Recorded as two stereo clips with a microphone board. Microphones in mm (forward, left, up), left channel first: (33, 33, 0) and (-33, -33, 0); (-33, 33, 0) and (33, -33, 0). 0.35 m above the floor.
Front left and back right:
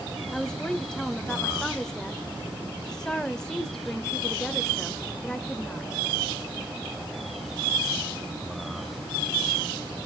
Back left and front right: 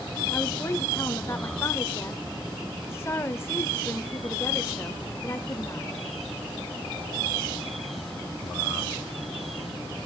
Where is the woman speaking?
120° left, 1.1 m.